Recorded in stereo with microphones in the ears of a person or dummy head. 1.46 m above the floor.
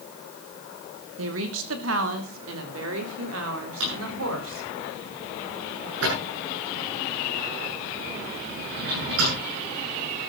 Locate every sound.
1.2 s a woman speaking: 80° right, 2 m; by 4.8 s 85° right, 4.5 m
3.8 s a drawer: 85° right, 8 m